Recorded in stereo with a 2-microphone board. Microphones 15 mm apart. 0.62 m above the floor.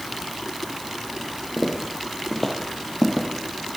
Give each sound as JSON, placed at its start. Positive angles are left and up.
{"t": 1.6, "sound": "footsteps", "side_deg": -30, "distance_m": 1.1}